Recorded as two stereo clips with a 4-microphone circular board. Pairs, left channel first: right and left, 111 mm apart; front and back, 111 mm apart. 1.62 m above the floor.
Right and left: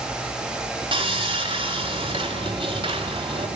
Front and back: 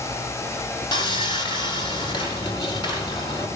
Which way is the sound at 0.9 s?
45° left.